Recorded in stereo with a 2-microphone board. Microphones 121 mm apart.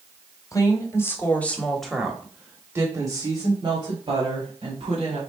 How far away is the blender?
No blender in this recording.